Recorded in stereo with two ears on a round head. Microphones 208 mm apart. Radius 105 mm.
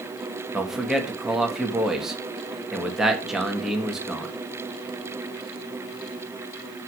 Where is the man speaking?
Centre (ahead or behind), 1.8 m.